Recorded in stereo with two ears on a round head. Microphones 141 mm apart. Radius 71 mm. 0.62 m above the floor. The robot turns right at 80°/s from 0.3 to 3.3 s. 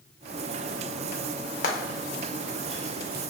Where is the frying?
55° left (ahead or behind), 0.6 m; by 3.2 s 70° right (ahead or behind), 0.6 m.